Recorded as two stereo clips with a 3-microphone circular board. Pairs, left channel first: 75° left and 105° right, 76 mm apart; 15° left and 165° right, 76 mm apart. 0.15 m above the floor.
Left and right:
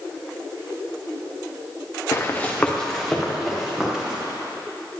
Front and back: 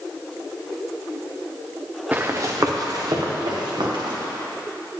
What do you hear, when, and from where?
2.1 s running footsteps: 125° left, 1.0 m; by 4.2 s 175° left, 3.5 m